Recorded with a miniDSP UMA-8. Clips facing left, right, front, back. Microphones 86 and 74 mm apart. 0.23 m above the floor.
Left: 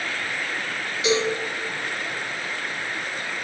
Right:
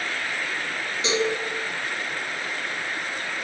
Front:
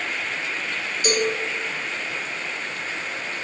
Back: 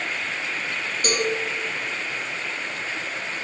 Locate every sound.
1.0 s a cowbell: 140° right, 4 m